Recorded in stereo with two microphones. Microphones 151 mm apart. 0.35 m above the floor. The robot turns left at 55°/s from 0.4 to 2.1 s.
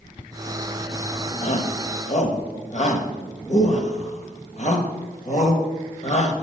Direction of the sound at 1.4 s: 45° left (ahead or behind).